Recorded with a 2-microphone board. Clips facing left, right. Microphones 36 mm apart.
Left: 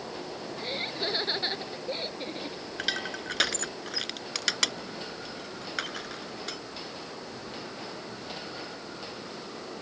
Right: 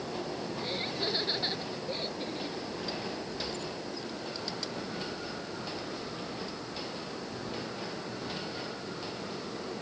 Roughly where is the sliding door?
I don't hear a sliding door.